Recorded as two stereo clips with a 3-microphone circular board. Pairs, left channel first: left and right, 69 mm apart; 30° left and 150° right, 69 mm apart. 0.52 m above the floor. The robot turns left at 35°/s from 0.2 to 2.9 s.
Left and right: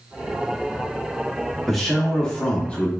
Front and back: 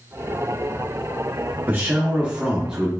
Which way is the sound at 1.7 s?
175° left.